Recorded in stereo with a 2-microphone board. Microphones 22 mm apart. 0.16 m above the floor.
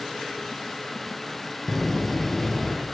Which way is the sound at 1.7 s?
10° left (ahead or behind).